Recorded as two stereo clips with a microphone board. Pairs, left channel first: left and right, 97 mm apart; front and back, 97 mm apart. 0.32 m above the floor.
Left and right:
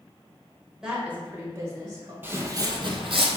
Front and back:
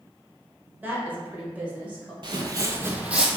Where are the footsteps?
155° right, 0.5 m; by 3.4 s 95° right, 0.7 m.